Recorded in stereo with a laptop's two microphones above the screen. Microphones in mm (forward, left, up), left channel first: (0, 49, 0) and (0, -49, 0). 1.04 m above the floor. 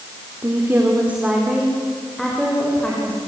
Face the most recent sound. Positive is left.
turn(degrees=15)  # may be behind; listen again after turning